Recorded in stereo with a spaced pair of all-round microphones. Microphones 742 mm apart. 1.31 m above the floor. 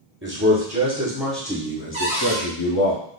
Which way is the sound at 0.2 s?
15° right (ahead or behind).